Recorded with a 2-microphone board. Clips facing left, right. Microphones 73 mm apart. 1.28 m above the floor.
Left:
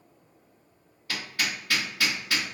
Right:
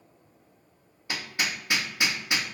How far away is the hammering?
About 0.7 m.